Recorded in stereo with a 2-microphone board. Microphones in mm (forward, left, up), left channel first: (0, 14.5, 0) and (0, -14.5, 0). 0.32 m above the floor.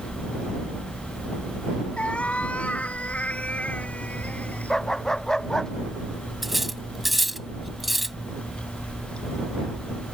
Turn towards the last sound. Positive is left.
turn(degrees=0)  # may be behind; listen again after turning